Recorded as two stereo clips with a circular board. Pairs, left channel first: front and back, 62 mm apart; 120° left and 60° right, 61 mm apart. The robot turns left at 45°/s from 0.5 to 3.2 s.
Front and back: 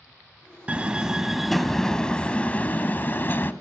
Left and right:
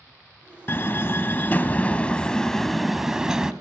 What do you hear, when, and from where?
0.7 s a door slam: 125° left, 0.7 m; by 3.5 s 15° left, 0.7 m